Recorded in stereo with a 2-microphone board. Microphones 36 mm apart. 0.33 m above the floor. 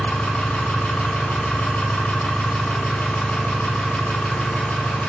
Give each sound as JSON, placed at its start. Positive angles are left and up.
{"t": 0.0, "sound": "an engine running", "side_deg": 45, "distance_m": 0.8}